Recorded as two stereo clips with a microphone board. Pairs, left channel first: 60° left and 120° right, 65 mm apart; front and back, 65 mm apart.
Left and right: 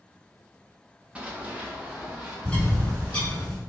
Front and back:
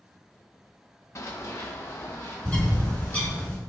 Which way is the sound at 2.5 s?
15° left.